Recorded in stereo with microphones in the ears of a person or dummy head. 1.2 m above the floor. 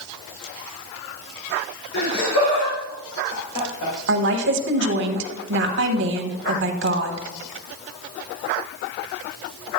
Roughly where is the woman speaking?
Right.